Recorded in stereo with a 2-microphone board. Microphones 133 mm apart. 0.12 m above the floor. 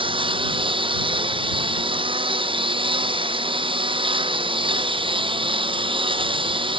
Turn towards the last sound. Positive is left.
turn(degrees=-45)  # may be behind; listen again after turning